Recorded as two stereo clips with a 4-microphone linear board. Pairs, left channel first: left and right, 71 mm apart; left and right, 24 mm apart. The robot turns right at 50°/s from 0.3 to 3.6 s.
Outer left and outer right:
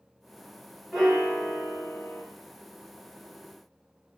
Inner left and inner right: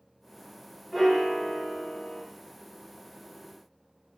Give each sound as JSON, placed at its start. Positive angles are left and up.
{"t": 0.9, "sound": "a piano", "azimuth_deg": 0, "distance_m": 1.2}